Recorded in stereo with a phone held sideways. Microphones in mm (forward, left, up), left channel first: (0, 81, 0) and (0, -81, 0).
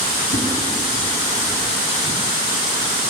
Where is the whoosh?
55° left (ahead or behind), 1.6 m.